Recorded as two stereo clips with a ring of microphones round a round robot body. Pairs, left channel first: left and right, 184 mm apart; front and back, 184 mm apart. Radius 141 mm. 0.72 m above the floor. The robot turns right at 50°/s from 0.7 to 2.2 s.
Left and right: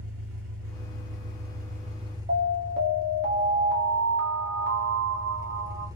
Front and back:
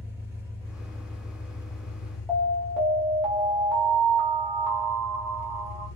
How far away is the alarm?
About 1.3 m.